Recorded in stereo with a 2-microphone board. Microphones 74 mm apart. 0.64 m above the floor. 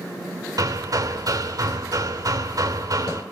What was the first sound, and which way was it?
Hammering, 55° right (ahead or behind).